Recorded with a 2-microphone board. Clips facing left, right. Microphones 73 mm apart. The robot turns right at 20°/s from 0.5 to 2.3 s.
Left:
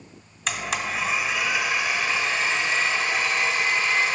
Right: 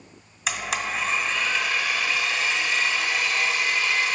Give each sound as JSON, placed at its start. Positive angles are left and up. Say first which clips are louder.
{"t": 0.5, "sound": "a blender", "louder": "even", "azimuth_deg": -5, "distance_m": 1.1}